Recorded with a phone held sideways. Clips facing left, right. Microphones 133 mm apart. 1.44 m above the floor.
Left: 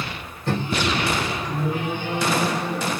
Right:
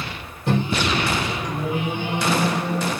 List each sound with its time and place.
0.5 s a microwave: 15° right (ahead or behind), 0.6 m